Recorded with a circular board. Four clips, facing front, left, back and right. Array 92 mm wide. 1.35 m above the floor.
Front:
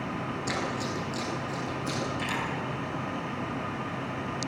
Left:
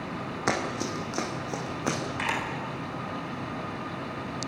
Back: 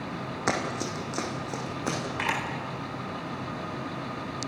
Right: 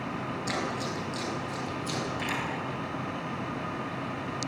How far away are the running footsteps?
About 4.5 m.